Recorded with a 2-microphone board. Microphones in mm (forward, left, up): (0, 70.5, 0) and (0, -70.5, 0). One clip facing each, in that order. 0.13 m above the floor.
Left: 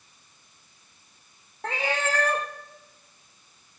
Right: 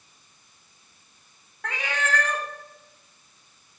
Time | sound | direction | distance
1.6 | a cat meowing | 30° left (ahead or behind) | 1.3 m